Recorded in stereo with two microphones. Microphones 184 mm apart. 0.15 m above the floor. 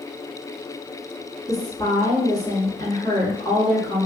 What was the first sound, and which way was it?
A woman speaking, 20° left (ahead or behind).